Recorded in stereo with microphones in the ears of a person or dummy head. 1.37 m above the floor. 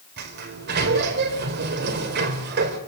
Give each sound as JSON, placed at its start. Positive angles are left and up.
{"t": 0.2, "sound": "a sliding door", "side_deg": -55, "distance_m": 3.5}